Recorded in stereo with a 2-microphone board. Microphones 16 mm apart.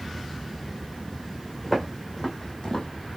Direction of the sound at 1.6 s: 15° left (ahead or behind).